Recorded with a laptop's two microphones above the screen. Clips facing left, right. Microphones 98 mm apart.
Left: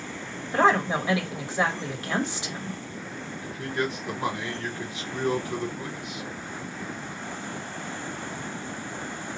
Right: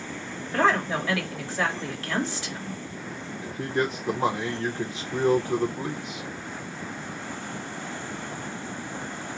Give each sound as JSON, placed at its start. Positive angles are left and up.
{"t": 0.5, "sound": "a woman speaking", "side_deg": 20, "distance_m": 1.3}
{"t": 3.4, "sound": "a man speaking", "side_deg": -35, "distance_m": 0.5}